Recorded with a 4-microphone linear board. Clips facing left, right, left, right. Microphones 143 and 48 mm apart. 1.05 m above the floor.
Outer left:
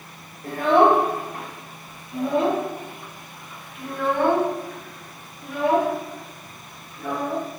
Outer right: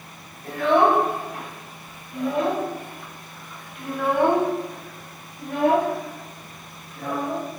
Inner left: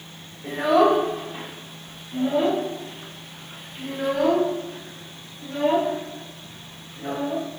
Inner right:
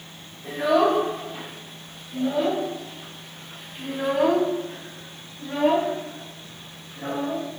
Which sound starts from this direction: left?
A child speaking, at 0.4 s.